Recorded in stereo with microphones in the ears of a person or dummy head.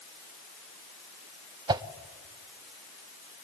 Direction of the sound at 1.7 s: 25° right (ahead or behind).